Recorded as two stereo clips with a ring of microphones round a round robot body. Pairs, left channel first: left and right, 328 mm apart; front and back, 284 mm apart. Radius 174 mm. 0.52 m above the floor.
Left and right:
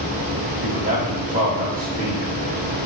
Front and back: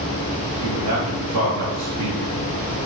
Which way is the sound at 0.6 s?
155° right.